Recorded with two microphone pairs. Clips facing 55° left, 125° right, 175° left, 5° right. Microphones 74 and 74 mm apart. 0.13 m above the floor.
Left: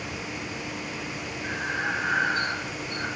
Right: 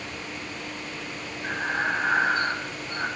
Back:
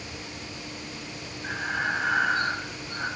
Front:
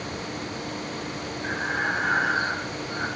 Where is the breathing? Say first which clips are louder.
Right 3 dB, front 2 dB; 75° right, 3 m.